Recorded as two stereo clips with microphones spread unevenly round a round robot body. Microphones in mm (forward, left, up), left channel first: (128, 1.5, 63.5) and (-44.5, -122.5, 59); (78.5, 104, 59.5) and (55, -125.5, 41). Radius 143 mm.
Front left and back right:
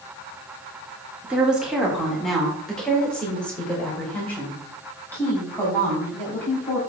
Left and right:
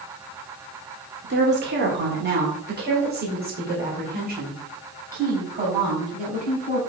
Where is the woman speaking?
60° right, 1.8 m; by 6.8 s 45° right, 5.5 m.